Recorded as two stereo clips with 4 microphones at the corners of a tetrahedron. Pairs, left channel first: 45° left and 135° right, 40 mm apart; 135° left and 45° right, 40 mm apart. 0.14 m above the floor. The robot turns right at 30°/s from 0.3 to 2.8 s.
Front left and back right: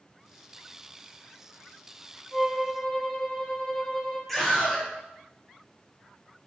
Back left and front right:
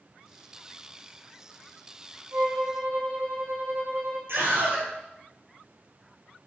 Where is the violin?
40° right, 2.0 m; by 4.2 s 25° right, 2.0 m.